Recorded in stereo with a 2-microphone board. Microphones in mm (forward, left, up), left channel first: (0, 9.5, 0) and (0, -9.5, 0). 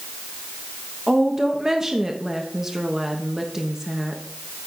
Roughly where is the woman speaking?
Right.